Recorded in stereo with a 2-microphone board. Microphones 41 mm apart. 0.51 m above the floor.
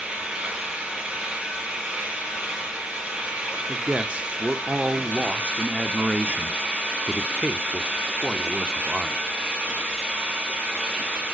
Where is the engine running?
25° right (ahead or behind), 5 m.